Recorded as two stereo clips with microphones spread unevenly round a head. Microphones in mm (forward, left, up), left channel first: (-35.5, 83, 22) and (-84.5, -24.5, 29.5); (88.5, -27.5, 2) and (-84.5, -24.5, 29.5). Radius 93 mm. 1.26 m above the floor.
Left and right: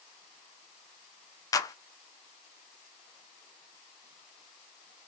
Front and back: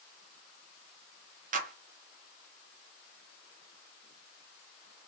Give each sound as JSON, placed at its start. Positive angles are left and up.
{"t": 1.5, "sound": "a clap", "azimuth_deg": 130, "distance_m": 0.6}